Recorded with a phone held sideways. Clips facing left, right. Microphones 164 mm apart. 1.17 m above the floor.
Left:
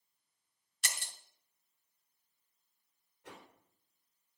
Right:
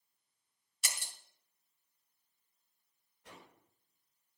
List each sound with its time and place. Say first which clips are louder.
0.8 s breaking glass: left 1 dB; 5° right (ahead or behind), 2 m
3.2 s a whoosh: left 3 dB; 85° left, 4 m